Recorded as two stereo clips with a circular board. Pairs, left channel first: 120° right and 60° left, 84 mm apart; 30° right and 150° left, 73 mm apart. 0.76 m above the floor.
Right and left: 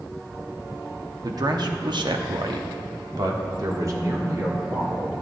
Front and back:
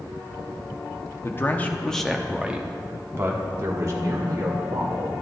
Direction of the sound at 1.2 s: 25° left.